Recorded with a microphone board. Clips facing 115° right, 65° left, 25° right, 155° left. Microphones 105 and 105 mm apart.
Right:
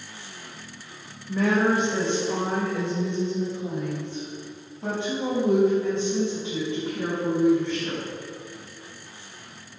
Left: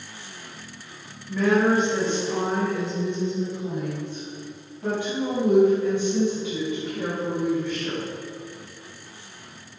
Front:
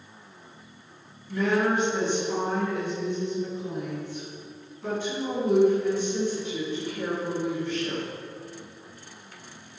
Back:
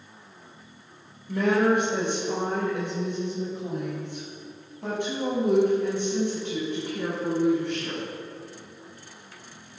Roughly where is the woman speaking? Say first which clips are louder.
Left 2 dB, back 3 dB; behind.